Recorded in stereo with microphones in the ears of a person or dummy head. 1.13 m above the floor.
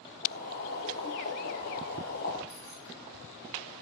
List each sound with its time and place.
0.2 s boiling: 50° left (ahead or behind), 4 m
2.5 s keys jangling: 25° left (ahead or behind), 2 m